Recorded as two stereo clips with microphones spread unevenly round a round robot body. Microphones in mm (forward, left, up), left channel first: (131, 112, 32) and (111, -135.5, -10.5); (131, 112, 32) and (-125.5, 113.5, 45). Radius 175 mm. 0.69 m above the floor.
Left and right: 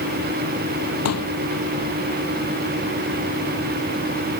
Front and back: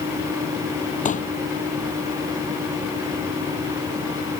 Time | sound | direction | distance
1.1 | a pop | 60° left | ?